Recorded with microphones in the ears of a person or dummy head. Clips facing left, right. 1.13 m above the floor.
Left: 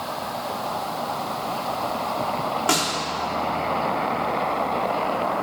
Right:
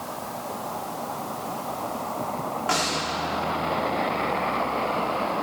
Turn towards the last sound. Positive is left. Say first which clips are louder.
# left 1 dB
turn(degrees=60)  # may be behind; listen again after turning